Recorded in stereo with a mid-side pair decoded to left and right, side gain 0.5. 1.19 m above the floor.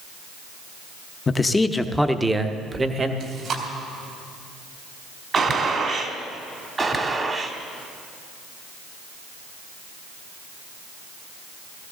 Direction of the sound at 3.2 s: 60° right.